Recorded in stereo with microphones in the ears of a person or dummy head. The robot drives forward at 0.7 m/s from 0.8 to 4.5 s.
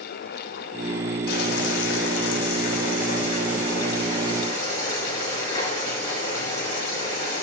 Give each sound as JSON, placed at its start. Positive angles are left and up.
{"t": 1.3, "sound": "boiling", "side_deg": 60, "distance_m": 1.1}